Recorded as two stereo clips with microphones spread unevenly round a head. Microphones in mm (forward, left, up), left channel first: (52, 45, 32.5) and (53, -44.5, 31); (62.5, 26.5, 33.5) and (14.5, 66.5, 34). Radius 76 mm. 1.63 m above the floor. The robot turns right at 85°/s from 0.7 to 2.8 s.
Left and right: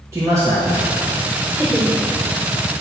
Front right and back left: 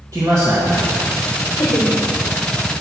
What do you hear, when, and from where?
0.1 s a man speaking: 160° right, 1.8 m; by 0.9 s 140° right, 1.8 m
1.6 s laughter: 40° right, 1.9 m; by 2.0 s 5° right, 1.9 m